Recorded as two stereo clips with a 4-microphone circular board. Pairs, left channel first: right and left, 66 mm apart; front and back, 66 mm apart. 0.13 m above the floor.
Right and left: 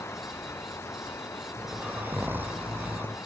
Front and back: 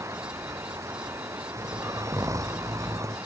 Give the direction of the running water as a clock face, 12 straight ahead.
5 o'clock.